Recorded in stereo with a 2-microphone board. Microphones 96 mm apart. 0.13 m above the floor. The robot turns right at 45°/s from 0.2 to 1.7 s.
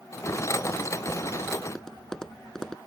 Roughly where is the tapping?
Centre.